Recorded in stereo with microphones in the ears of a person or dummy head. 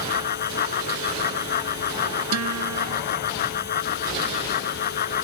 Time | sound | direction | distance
0.0 | a fan | 50° left (ahead or behind) | ?
2.3 | a guitar | 90° right | ?